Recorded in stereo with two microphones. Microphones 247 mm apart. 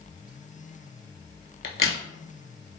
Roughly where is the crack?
Left.